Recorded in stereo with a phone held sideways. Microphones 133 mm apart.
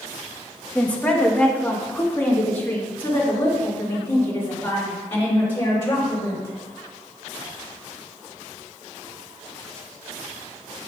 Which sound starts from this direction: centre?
A woman speaking, at 0.8 s.